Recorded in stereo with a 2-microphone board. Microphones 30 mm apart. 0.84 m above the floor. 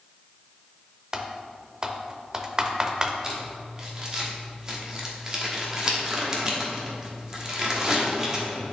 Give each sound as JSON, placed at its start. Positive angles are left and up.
{"t": 1.1, "sound": "typing on a keyboard", "side_deg": -25, "distance_m": 0.6}
{"t": 3.2, "sound": "crumpling", "side_deg": -25, "distance_m": 1.2}